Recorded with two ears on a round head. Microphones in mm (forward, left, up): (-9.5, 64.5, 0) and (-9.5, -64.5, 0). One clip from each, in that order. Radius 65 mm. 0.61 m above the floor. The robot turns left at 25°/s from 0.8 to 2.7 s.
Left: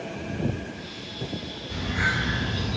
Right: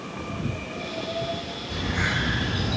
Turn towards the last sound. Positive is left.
turn(degrees=-45)  # may be behind; listen again after turning